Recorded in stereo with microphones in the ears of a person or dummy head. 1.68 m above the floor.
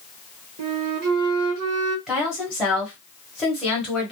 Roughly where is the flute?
Right.